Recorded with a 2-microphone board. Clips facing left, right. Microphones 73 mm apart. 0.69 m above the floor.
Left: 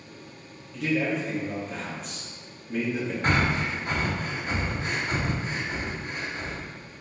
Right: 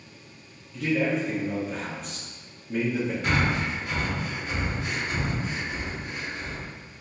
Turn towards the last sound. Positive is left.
turn(degrees=40)  # may be behind; listen again after turning